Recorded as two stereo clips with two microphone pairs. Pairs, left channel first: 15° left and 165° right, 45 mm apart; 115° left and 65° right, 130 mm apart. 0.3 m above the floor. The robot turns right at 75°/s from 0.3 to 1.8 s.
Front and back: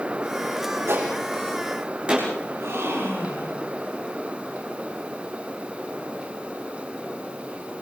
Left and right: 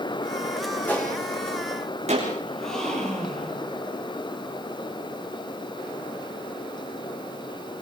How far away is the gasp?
About 8 m.